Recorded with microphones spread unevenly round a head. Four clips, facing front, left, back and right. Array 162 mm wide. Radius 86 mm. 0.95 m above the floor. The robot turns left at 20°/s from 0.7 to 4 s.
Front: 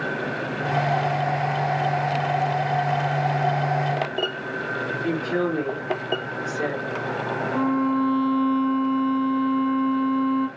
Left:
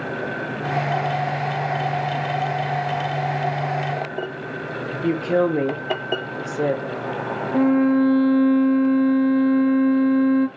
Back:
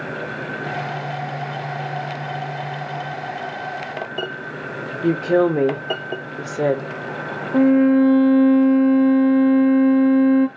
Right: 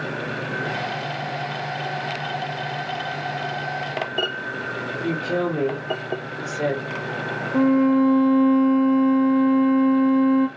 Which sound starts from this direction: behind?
A violin, at 7.5 s.